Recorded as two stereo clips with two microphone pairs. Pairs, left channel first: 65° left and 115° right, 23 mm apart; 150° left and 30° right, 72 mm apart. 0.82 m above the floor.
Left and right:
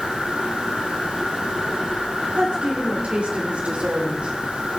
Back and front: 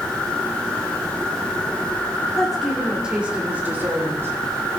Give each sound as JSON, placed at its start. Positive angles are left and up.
{"t": 2.4, "sound": "a woman speaking", "azimuth_deg": -125, "distance_m": 2.5}